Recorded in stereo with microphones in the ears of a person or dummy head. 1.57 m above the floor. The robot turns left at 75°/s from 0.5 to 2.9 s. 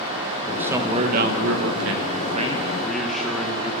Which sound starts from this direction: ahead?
A man speaking, at 0.5 s.